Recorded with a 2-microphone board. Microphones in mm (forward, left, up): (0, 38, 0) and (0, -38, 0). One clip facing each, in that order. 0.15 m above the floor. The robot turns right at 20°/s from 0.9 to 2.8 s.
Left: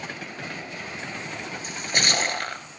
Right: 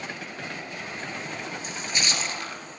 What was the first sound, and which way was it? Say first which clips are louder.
A splash: left 5 dB; 50° left (ahead or behind).